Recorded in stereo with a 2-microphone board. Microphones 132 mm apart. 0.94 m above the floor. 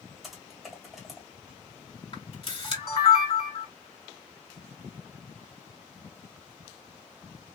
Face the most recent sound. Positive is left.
turn(degrees=40)  # may be behind; listen again after turning